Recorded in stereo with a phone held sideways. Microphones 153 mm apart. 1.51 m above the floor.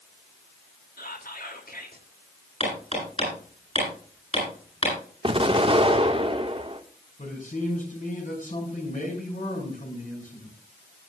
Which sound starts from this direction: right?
An explosion, at 5.2 s.